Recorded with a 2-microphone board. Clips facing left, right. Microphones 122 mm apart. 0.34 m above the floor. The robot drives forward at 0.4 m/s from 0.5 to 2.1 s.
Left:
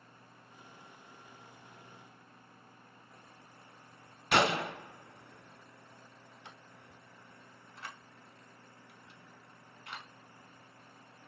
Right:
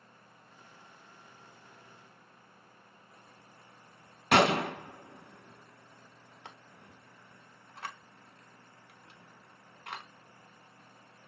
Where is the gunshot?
70° right (ahead or behind), 0.5 m.